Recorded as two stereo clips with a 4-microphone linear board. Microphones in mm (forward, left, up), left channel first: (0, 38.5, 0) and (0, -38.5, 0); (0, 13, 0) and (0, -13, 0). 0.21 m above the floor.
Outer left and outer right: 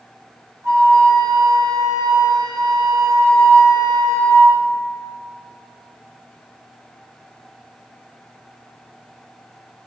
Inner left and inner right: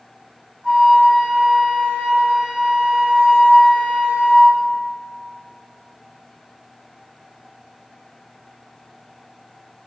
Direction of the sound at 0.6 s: 50° right (ahead or behind).